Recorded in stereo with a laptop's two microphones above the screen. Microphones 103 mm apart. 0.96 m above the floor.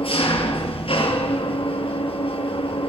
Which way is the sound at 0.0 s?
60° left (ahead or behind).